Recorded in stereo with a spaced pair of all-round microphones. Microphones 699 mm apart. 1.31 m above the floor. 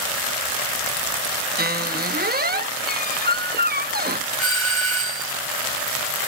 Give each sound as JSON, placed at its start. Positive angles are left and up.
{"t": 1.6, "sound": "a squeak", "side_deg": -15}
{"t": 4.4, "sound": "a doorbell", "side_deg": -40}